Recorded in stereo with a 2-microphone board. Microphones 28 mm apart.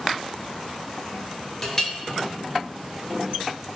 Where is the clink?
20° left (ahead or behind), 1.5 m.